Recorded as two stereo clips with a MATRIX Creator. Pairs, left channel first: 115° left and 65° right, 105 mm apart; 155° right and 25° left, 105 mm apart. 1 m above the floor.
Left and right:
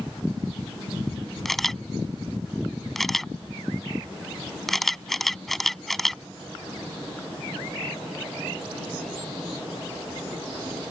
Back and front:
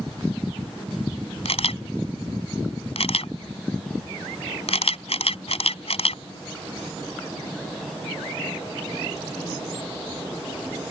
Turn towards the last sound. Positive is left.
turn(degrees=-160)